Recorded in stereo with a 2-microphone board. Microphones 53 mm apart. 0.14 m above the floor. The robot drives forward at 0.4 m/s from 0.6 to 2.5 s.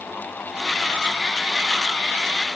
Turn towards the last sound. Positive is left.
No sound to turn to.